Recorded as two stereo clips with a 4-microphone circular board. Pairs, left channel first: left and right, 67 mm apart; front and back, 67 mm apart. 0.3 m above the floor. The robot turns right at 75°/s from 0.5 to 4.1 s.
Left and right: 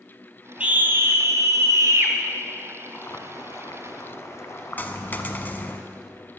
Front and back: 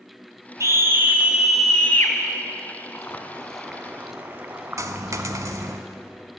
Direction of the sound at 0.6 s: 160° right.